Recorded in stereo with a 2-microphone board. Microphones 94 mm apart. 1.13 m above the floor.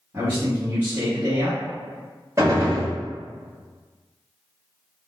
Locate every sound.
0.1 s a man speaking: 25° right (ahead or behind), 1.4 m
2.4 s a gunshot: 35° right (ahead or behind), 1.1 m